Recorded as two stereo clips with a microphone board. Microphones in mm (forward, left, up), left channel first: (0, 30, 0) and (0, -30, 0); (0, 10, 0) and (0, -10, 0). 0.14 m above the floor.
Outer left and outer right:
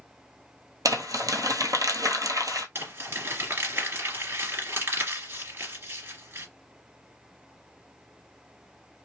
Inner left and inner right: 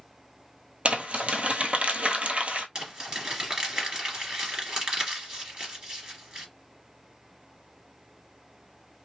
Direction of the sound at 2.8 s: 40° right (ahead or behind).